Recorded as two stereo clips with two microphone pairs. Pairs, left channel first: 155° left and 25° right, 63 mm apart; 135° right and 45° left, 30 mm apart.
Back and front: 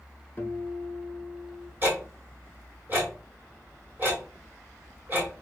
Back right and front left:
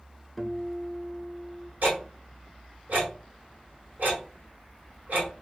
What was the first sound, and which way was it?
A guitar, 145° left.